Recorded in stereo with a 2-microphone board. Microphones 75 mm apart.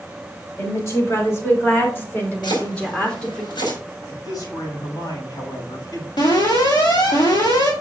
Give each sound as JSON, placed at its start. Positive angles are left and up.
{"t": 0.6, "sound": "a woman speaking", "side_deg": 40, "distance_m": 5.0}
{"t": 2.4, "sound": "chopping", "side_deg": 85, "distance_m": 5.0}
{"t": 4.1, "sound": "a man speaking", "side_deg": 60, "distance_m": 5.5}
{"t": 6.2, "sound": "an alarm", "side_deg": 80, "distance_m": 3.0}